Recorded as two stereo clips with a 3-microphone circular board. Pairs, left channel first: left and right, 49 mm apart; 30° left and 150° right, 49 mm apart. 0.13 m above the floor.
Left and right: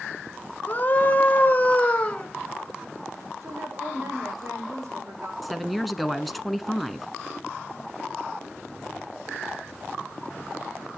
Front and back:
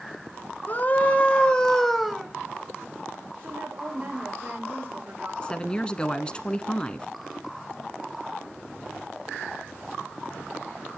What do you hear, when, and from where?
0.7 s a scream: 55° left, 2.0 m; by 2.3 s 135° left, 1.7 m
3.4 s a woman speaking: 105° right, 8 m
5.4 s a woman speaking: 5° right, 1.2 m